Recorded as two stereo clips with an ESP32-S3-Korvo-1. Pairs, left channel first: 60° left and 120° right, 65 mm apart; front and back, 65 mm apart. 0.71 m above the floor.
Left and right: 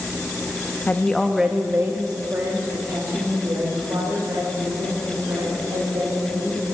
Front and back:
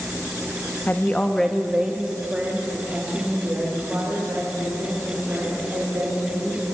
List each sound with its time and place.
0.9 s a woman speaking: 25° left, 0.6 m; by 6.7 s 125° right, 4 m